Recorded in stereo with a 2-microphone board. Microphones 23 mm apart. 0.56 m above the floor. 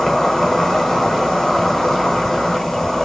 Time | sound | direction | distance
0.0 | an insect | 15° left (ahead or behind) | 1.0 m